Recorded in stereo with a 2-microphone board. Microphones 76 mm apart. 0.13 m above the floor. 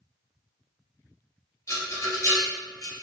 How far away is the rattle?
About 1.9 m.